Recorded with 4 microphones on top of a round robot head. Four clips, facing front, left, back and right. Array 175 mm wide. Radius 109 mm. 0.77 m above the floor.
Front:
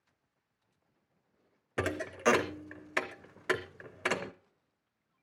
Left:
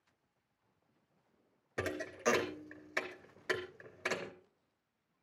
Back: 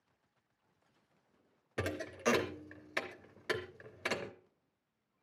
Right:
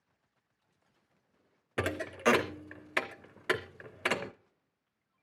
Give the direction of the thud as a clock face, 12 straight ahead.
2 o'clock.